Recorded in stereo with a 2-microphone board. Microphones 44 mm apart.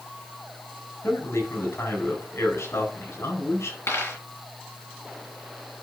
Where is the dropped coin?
75° left (ahead or behind), 4.5 m.